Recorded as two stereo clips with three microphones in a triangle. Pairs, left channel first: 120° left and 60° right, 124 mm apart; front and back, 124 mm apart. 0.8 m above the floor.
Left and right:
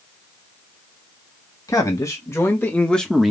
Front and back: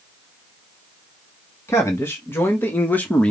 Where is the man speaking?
65° left, 1.5 m; by 3.3 s 5° left, 0.9 m.